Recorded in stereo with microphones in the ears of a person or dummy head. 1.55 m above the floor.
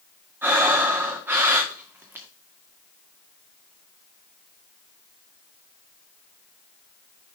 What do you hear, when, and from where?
0.4 s breathing: 10° right (ahead or behind), 1.7 m